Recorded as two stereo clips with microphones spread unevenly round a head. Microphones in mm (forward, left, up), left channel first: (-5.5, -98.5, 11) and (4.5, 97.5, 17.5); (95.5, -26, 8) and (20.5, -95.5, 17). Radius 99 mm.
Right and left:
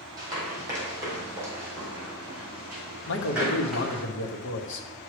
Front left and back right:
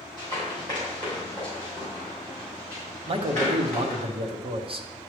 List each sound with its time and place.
0.2 s running footsteps: 155° left, 3 m; by 4.0 s 175° left, 5 m
3.1 s a man speaking: 105° right, 0.9 m